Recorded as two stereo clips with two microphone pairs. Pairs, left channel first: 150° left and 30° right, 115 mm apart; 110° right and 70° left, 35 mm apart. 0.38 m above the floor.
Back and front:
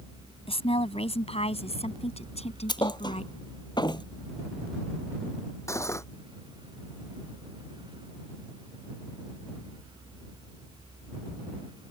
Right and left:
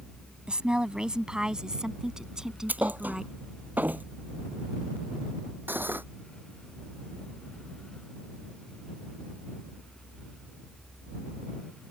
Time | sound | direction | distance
0.5 | a woman speaking | 130° left | ?
2.7 | a thud | 100° left | ?
5.7 | cutlery clinking | 85° left | ?